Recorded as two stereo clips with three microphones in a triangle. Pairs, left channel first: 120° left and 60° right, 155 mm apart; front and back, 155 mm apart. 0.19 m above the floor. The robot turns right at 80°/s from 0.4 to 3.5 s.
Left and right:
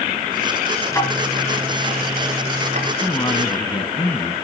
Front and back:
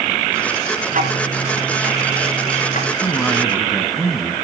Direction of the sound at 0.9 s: 175° right.